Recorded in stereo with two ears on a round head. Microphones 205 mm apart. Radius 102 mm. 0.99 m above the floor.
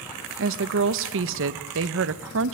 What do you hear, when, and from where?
0.4 s a woman speaking: 60° right (ahead or behind), 0.9 m